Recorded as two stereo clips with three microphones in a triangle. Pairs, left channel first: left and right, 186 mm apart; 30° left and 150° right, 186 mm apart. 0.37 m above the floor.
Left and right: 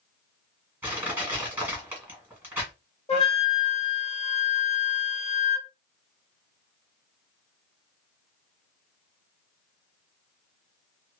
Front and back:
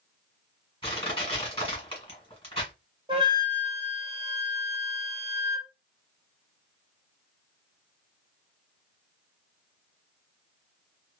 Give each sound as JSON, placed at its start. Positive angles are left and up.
{"t": 0.8, "sound": "crushing", "azimuth_deg": -15, "distance_m": 1.7}
{"t": 3.1, "sound": "a flute", "azimuth_deg": 145, "distance_m": 0.8}